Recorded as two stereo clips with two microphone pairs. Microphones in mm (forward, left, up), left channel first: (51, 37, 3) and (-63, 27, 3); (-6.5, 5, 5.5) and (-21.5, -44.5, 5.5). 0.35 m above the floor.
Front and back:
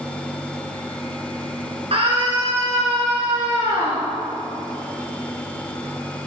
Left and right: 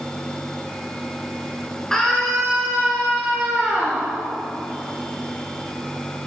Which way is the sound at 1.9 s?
155° left.